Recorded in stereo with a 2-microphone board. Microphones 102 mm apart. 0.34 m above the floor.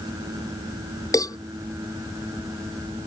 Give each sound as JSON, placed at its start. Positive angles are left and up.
{"t": 1.1, "sound": "a cowbell", "side_deg": 35}